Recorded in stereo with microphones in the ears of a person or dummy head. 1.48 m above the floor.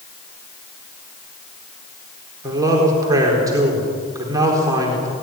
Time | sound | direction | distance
2.4 | a man speaking | 20° right (ahead or behind) | 4 m